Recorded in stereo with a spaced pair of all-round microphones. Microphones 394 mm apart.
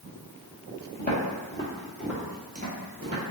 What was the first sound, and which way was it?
Footsteps, 25° left (ahead or behind).